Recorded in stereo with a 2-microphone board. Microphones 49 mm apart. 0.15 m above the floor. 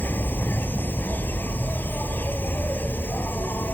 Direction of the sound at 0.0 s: 45° left (ahead or behind).